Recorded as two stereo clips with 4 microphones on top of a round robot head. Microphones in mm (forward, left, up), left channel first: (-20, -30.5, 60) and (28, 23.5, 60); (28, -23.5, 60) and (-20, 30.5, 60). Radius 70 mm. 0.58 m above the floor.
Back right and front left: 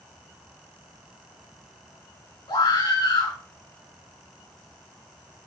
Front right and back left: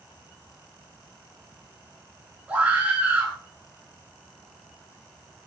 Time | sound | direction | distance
2.5 | a scream | 155° right | 8 m